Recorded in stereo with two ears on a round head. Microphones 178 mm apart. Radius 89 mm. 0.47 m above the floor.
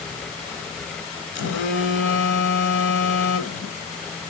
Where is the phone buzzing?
65° left (ahead or behind), 1.4 m.